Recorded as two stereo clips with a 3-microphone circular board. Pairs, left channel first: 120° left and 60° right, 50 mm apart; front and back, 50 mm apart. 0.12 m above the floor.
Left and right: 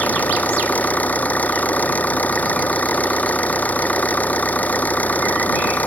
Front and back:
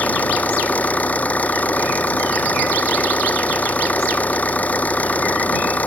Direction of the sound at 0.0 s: 60° left.